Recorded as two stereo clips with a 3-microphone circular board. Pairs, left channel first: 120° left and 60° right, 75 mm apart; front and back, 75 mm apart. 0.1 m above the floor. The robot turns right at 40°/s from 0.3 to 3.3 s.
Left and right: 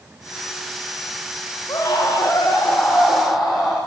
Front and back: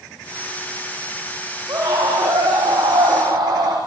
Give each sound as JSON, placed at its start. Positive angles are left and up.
{"t": 1.7, "sound": "a scream", "azimuth_deg": 150, "distance_m": 6.5}